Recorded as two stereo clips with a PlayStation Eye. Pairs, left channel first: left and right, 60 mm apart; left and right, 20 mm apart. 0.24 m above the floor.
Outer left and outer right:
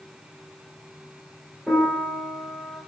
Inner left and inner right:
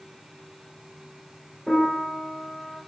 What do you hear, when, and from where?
1.7 s a piano: 5° right (ahead or behind), 3.5 m